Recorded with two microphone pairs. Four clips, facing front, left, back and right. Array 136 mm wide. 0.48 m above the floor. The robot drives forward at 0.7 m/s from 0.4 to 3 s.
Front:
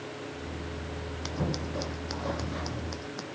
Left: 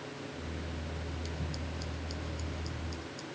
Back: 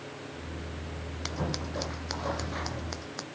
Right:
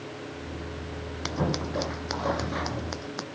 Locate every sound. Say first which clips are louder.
1.2 s scissors: right 12 dB, front 1 dB; 100° right; by 3.2 s 105° right